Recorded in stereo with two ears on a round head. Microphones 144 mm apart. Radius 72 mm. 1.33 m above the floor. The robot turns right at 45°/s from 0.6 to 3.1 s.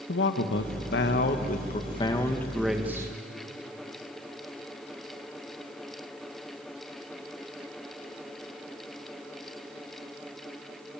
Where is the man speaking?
90° left, 1.4 m; by 3.1 s 160° right, 1.4 m.